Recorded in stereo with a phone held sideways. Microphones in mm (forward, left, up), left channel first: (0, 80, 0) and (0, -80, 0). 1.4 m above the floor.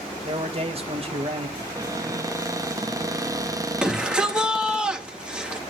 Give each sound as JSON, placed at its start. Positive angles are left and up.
{"t": 0.2, "sound": "a man speaking", "side_deg": -40, "distance_m": 1.9}
{"t": 1.6, "sound": "a cupboard door", "side_deg": -25, "distance_m": 0.7}
{"t": 3.8, "sound": "a shout", "side_deg": -5, "distance_m": 3.5}